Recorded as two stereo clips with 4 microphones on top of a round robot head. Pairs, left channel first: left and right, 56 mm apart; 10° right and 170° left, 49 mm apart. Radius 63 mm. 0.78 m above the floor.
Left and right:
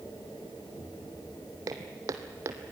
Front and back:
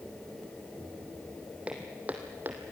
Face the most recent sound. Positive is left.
turn(degrees=-130)